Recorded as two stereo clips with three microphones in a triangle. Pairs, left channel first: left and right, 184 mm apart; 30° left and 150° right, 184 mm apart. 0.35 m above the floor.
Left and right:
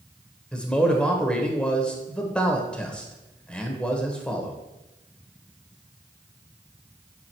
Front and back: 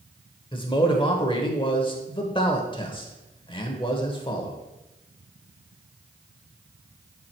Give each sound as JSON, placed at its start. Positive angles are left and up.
{"t": 0.5, "sound": "a man speaking", "azimuth_deg": 10, "distance_m": 1.0}